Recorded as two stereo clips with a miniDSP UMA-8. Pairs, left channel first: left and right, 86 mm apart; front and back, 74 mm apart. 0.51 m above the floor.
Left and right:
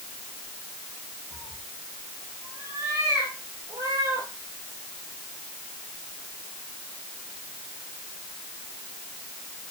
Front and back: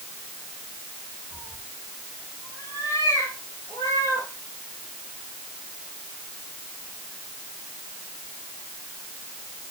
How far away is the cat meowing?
About 6 m.